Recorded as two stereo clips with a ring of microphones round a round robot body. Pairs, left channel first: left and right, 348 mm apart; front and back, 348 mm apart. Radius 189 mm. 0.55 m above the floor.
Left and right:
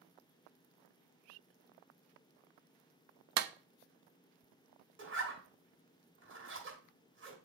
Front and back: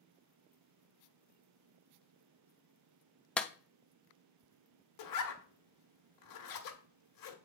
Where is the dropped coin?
No dropped coin in this recording.